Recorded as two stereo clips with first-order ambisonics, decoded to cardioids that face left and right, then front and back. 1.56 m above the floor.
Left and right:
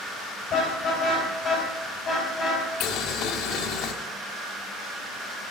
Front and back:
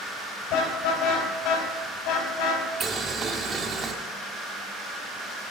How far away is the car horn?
About 4.5 m.